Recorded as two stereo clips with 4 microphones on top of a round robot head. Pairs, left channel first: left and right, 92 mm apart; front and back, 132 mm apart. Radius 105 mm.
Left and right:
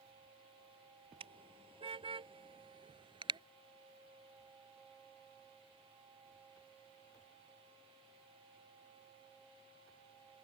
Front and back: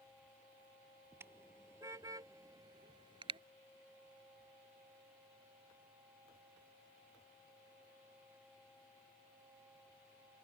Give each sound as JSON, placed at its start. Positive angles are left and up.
{"t": 1.2, "sound": "a car horn", "azimuth_deg": -105}